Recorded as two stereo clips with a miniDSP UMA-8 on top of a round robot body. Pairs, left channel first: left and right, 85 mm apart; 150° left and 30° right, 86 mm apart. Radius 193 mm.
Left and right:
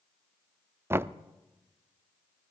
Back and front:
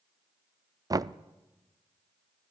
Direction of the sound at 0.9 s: 40° right.